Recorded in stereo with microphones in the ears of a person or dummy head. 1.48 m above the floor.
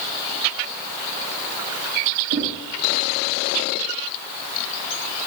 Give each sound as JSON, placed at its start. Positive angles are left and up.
{"t": 2.3, "sound": "knocking", "side_deg": -50, "distance_m": 2.5}